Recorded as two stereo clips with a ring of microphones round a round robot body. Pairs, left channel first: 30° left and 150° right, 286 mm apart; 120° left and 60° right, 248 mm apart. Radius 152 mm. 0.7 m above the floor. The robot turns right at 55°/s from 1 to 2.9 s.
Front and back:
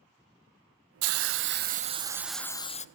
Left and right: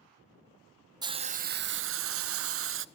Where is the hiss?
135° right, 0.7 m; by 2.9 s 30° right, 0.7 m.